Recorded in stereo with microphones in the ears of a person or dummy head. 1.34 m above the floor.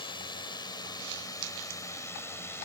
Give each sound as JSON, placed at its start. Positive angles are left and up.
{"t": 0.0, "sound": "a drone", "side_deg": 20}